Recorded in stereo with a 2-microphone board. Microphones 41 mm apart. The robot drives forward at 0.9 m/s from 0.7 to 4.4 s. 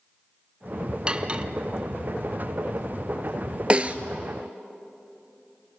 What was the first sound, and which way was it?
Cutlery clinking, 25° right (ahead or behind).